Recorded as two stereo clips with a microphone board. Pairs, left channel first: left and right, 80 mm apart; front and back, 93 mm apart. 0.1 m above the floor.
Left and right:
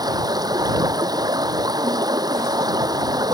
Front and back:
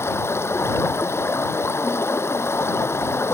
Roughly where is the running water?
Ahead right.